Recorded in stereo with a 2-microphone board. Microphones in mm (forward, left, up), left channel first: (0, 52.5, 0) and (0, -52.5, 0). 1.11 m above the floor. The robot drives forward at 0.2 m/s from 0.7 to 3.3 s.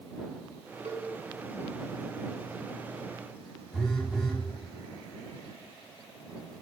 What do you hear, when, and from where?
0.8 s a cowbell: 85° right, 2.5 m
3.7 s a phone buzzing: 5° left (ahead or behind), 1.5 m